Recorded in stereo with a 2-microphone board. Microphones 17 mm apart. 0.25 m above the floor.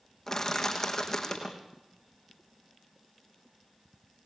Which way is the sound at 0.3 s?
25° left (ahead or behind).